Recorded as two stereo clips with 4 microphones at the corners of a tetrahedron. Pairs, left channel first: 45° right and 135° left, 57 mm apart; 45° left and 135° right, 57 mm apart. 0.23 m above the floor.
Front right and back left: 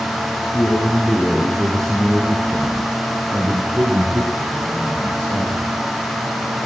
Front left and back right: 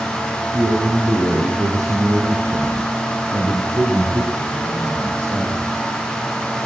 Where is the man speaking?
100° right, 5 m; by 5.7 s 175° left, 7 m.